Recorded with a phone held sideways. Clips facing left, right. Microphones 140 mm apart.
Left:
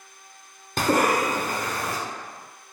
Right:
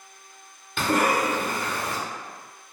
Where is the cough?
40° left (ahead or behind), 0.8 m.